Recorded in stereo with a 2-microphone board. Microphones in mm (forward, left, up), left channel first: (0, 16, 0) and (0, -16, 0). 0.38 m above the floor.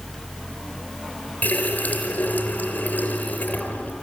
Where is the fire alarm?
No fire alarm in this recording.